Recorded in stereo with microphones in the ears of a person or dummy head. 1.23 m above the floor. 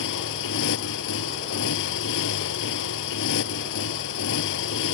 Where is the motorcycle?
70° left (ahead or behind).